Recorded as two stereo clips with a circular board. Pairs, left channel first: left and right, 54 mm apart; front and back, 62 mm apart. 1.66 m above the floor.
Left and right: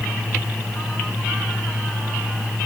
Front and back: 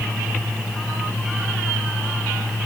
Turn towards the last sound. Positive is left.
No sound to turn to.